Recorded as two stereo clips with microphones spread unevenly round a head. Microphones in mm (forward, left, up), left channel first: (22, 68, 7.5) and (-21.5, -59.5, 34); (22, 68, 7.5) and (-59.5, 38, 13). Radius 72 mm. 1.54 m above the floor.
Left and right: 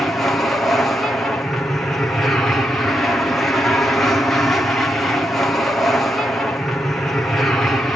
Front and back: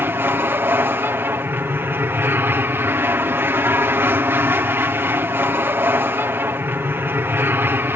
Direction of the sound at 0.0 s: 145° left.